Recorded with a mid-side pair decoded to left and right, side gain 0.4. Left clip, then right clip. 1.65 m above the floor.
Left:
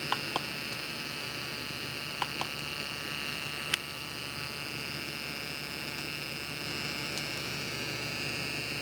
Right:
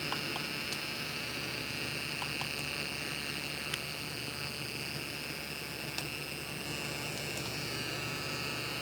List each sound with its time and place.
Only background noise.